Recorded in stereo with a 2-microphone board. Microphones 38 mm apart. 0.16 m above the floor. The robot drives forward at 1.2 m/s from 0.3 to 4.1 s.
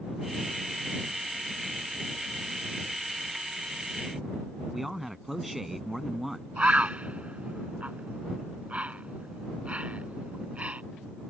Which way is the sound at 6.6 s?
35° right (ahead or behind).